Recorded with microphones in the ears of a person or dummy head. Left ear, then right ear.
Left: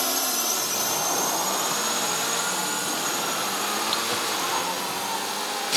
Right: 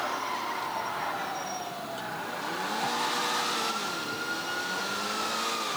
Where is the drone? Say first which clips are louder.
Left 5 dB; 65° left (ahead or behind); by 5.8 s 35° left (ahead or behind).